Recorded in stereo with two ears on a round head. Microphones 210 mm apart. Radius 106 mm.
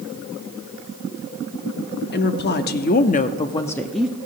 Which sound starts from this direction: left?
A woman speaking, at 2.1 s.